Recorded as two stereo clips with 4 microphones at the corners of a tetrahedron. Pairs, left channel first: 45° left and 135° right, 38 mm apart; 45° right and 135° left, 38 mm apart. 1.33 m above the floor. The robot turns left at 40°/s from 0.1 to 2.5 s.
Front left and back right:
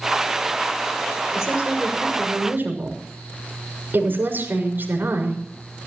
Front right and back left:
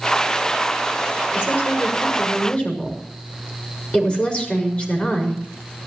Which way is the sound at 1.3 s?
55° right.